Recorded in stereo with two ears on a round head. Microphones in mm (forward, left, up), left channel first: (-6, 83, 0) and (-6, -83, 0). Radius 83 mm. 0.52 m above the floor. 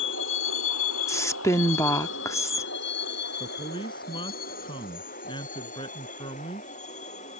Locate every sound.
0.0 s a vehicle: 70° left (ahead or behind); by 7.4 s 40° left (ahead or behind)
1.1 s a woman speaking: 15° left (ahead or behind)
3.4 s a man speaking: 25° left (ahead or behind)